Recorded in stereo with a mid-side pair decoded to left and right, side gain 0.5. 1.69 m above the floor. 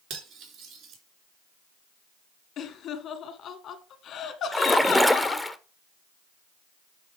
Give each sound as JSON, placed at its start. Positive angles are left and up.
{"t": 0.1, "sound": "cutlery clinking", "azimuth_deg": -70, "distance_m": 3.0}
{"t": 2.6, "sound": "laughter", "azimuth_deg": 60, "distance_m": 1.9}
{"t": 4.5, "sound": "a splash", "azimuth_deg": 0, "distance_m": 0.8}